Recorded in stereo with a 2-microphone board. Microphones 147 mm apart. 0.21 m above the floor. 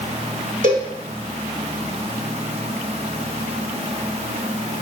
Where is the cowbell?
60° right (ahead or behind), 1.5 m.